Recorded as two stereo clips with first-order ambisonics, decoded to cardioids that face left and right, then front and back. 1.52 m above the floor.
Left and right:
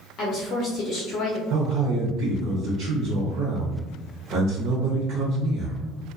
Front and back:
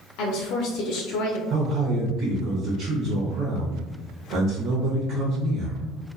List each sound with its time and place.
0.2 s a woman speaking: 30° left, 0.5 m
1.5 s a man speaking: 130° right, 0.6 m